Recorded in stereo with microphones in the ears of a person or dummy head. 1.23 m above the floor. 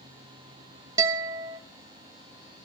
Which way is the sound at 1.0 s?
20° right (ahead or behind).